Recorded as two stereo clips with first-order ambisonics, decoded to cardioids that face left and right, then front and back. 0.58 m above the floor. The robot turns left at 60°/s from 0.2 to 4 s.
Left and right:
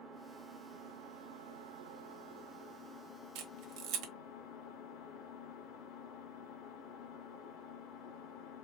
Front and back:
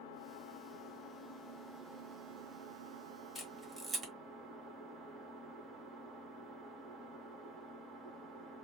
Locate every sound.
0.0 s an engine running: 10° right, 1.5 m; by 8.7 s 120° left, 1.5 m
3.4 s a camera shutter: 80° right, 1.2 m; by 4.1 s 120° right, 1.2 m